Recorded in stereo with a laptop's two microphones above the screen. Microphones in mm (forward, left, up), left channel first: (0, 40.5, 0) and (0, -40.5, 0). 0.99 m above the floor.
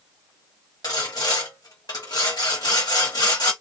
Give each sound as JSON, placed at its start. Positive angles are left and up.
{"t": 0.8, "sound": "sawing", "side_deg": 55, "distance_m": 1.2}